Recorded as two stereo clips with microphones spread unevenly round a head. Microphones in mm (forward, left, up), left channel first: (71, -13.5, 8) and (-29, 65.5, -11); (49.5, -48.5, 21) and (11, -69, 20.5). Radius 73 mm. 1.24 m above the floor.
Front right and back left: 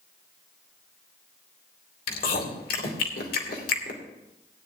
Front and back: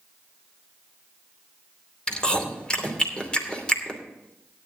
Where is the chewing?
40° right, 2.5 m.